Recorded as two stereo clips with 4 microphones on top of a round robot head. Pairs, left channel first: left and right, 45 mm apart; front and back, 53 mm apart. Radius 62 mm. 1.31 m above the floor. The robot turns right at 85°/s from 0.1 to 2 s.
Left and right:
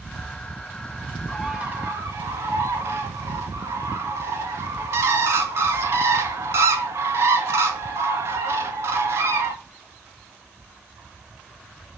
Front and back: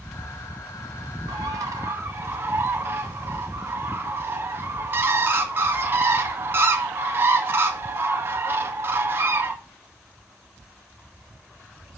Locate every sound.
1.3 s a bird: 175° left, 2 m; by 9.5 s 125° right, 2 m